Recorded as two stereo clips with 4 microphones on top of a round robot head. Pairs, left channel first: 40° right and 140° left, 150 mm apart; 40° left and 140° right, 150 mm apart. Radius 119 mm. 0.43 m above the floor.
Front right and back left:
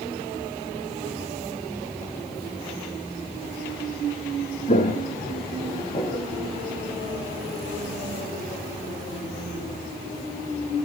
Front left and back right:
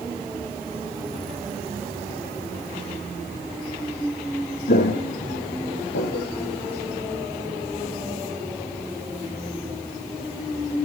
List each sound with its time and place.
4.7 s footsteps: 5° left, 2.5 m; by 6.3 s 25° left, 4 m